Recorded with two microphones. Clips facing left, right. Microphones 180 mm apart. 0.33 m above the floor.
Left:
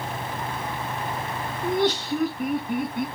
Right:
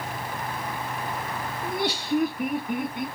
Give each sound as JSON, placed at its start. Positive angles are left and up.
{"t": 1.6, "sound": "laughter", "side_deg": -10, "distance_m": 1.4}